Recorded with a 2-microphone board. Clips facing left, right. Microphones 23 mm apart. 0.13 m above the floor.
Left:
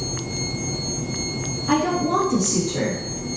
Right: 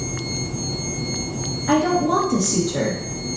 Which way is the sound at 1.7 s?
30° right (ahead or behind).